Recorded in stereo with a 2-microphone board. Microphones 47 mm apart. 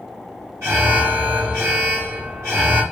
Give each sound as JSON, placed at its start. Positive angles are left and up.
{"t": 0.6, "sound": "an alarm", "side_deg": -70, "distance_m": 4.0}